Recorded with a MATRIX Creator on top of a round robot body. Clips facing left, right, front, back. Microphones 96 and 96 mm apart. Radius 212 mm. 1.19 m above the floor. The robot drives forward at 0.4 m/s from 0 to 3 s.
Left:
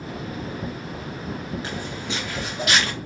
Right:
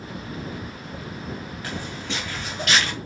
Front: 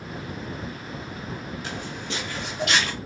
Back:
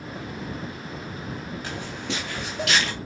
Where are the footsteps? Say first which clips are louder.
Left 1 dB, back 1 dB; 155° left, 1.2 m; by 2.9 s 175° left, 2 m.